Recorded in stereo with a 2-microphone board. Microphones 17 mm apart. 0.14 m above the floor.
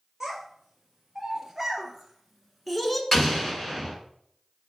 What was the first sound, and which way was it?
A child speaking, 30° right (ahead or behind).